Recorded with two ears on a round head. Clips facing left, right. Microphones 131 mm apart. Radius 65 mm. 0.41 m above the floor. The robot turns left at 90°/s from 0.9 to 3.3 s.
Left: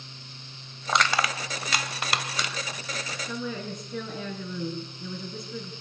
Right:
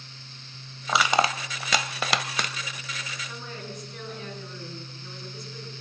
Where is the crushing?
5° left (ahead or behind), 1.2 m; by 2.5 s 30° right (ahead or behind), 1.2 m.